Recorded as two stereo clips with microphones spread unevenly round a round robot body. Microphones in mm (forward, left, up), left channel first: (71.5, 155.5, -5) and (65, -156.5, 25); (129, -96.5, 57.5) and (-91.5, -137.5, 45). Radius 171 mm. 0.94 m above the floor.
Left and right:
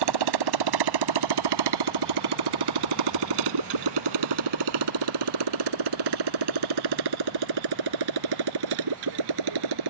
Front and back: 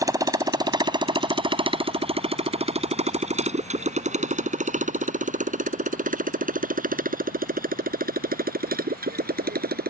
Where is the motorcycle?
95° right; by 9.9 s 120° right.